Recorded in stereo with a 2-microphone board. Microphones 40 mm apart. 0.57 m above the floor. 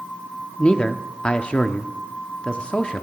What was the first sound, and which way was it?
A man speaking, 25° left (ahead or behind).